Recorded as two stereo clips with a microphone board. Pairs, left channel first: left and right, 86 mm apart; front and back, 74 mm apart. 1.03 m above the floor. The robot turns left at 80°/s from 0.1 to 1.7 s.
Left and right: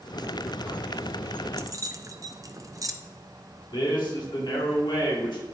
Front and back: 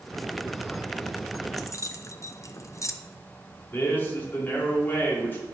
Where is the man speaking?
65° left, 2.5 m.